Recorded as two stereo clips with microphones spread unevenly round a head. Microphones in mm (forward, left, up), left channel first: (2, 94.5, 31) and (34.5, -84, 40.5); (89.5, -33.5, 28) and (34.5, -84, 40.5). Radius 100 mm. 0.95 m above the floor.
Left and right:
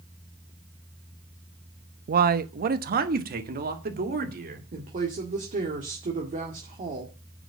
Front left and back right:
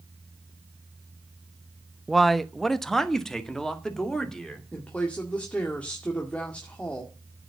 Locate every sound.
2.1 s a man speaking: 40° right, 0.7 m
4.7 s a woman speaking: 30° right, 1.9 m